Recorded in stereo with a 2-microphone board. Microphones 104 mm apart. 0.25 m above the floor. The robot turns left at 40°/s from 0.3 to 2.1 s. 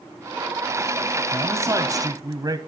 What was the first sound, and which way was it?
A man speaking, 45° right.